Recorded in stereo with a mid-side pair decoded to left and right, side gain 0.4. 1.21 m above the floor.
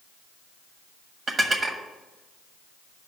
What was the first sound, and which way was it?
Dishes clattering, 45° right.